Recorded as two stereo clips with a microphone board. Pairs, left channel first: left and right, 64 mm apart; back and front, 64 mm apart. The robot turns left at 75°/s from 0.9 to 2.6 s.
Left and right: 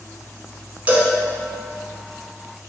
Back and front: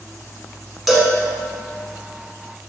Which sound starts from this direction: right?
A cowbell, at 0.9 s.